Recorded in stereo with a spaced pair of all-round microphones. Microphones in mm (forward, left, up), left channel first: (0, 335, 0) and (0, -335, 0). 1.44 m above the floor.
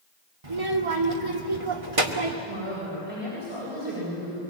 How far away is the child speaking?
About 2.5 m.